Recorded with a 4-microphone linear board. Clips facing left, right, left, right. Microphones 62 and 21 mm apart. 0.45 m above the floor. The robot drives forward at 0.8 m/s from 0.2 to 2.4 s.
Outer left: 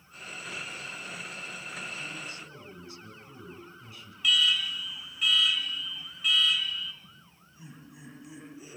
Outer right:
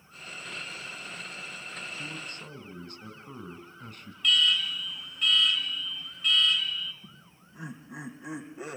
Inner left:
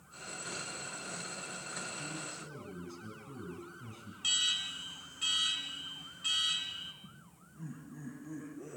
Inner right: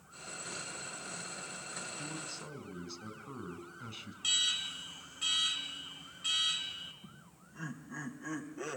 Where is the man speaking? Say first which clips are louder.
Even, even; 60° right (ahead or behind), 4 m; by 4.1 s 55° right (ahead or behind), 4 m.